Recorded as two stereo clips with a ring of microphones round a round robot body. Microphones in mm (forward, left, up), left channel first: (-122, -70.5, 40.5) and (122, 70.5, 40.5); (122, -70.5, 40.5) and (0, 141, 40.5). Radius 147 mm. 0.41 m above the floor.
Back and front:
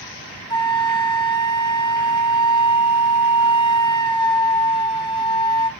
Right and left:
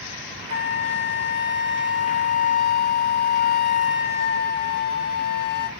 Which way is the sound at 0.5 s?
80° right.